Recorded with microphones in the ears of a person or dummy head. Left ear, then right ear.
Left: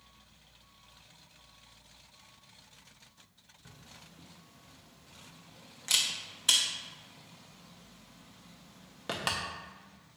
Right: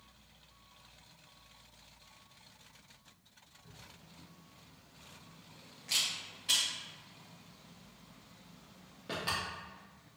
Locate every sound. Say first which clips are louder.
3.6 s a camera shutter: left 3 dB; 45° left (ahead or behind), 0.5 m